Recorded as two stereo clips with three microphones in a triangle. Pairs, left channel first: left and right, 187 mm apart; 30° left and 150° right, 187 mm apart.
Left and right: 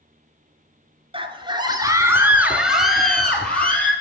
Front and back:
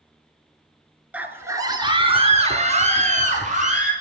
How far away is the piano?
I don't hear a piano.